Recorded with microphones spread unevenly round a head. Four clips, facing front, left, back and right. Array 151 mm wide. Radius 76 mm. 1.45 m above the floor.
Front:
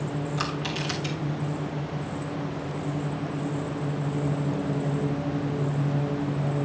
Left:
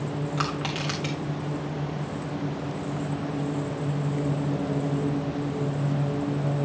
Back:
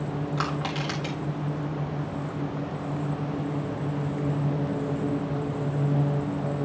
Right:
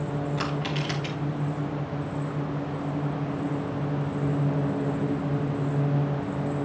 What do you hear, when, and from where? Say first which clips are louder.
0.4 s crushing: even, back 1 dB; 145° left, 2 m